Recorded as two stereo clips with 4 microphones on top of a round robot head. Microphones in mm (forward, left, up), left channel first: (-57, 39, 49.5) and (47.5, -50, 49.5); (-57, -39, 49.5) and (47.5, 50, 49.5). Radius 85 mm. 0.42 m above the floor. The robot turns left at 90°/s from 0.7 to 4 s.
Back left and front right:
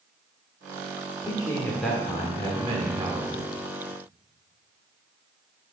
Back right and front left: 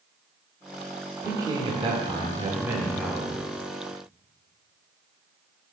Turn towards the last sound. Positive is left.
turn(degrees=-145)